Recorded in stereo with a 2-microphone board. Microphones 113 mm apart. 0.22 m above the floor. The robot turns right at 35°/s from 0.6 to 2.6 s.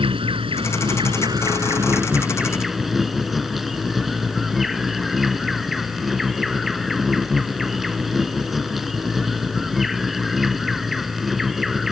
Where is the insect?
70° right; by 11.9 s straight ahead.